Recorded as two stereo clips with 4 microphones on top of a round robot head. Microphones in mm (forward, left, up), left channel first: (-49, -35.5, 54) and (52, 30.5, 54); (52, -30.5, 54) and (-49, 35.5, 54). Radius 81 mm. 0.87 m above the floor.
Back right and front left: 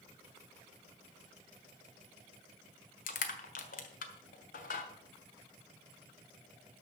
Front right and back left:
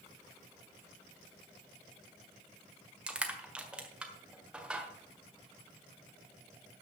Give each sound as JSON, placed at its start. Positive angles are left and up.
{"t": 3.1, "sound": "crushing", "azimuth_deg": -130, "distance_m": 1.5}